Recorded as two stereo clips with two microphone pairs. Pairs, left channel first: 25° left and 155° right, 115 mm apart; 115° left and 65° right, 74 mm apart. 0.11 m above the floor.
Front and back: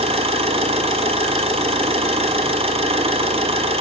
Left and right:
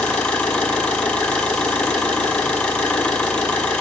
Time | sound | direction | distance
0.0 | an engine running | 170° right | 0.9 m